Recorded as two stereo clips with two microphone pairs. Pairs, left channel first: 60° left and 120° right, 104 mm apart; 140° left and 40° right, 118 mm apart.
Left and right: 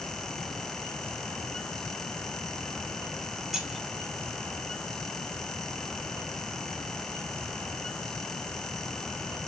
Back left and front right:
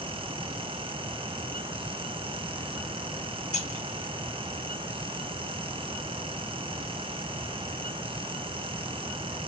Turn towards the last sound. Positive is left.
turn(degrees=155)